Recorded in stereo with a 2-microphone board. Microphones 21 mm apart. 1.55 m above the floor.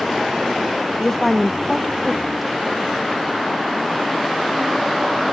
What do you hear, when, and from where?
1.0 s a woman speaking: 10° left (ahead or behind); by 3.0 s 10° right (ahead or behind)